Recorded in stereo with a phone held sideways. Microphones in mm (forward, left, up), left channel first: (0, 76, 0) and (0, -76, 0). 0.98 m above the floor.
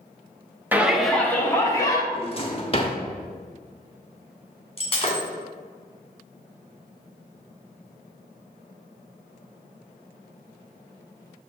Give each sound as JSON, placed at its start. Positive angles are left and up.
{"t": 0.7, "sound": "a shout", "side_deg": -10, "distance_m": 0.9}
{"t": 2.1, "sound": "a drawer", "side_deg": 35, "distance_m": 0.9}
{"t": 4.8, "sound": "breaking glass", "side_deg": 40, "distance_m": 2.0}